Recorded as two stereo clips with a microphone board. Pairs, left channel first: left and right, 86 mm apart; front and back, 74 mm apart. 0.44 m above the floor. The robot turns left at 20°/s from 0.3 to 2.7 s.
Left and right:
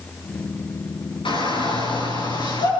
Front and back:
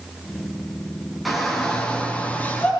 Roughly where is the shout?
Left.